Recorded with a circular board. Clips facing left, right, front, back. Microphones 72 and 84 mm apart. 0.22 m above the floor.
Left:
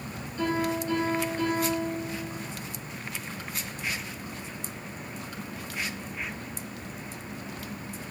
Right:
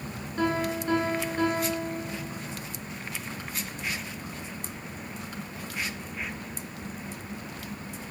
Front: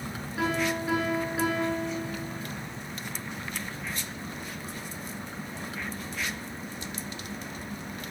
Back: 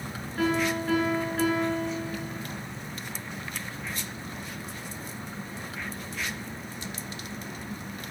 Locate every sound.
0.4 s a piano: 75° right, 3 m